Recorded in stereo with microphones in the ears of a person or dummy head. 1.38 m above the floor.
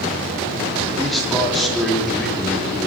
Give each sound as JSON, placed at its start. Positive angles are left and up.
{"t": 1.0, "sound": "a man speaking", "side_deg": 5, "distance_m": 4.0}